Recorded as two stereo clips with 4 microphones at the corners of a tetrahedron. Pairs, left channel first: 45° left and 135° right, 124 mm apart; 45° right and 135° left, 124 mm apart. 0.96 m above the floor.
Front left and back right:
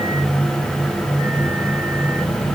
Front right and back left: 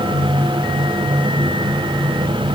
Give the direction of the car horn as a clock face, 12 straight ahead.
I don't hear a car horn.